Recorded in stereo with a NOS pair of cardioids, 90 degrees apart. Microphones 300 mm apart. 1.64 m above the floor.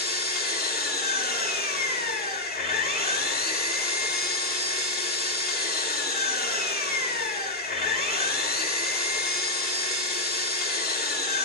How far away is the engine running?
About 6 m.